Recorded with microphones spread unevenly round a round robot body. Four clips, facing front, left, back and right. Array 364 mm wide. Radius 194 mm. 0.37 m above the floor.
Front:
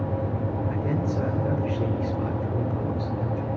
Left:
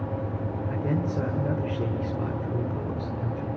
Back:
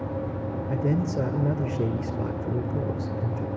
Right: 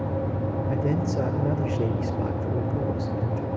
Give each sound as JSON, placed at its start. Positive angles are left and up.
{"t": 0.7, "sound": "a man speaking", "azimuth_deg": 180, "distance_m": 1.8}